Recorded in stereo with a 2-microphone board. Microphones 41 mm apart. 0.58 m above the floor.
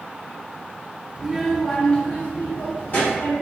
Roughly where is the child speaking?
Right.